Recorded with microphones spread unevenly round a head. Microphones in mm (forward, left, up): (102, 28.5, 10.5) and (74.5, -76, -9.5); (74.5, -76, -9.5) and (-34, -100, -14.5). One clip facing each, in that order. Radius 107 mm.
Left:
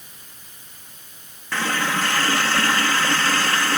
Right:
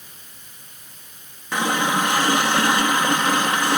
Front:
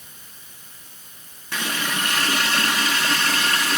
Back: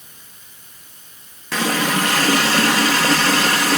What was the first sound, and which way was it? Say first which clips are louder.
A running tap: right 3 dB, back 8 dB; 170° left.